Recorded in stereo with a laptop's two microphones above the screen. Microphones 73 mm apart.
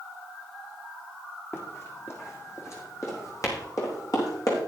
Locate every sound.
1.5 s running footsteps: 35° left (ahead or behind), 3 m; by 4.6 s 50° left (ahead or behind), 4.5 m